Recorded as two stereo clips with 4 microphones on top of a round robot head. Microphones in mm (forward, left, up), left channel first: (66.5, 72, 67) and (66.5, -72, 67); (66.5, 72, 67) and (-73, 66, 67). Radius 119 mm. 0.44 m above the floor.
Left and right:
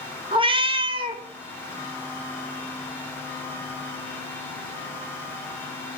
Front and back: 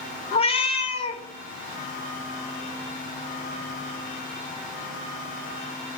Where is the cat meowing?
40° right, 0.8 m.